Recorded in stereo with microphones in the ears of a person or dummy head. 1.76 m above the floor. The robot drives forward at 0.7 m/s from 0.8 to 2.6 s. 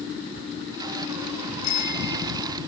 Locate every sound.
1.6 s a bicycle bell: 50° left (ahead or behind); by 2.6 s 45° left (ahead or behind)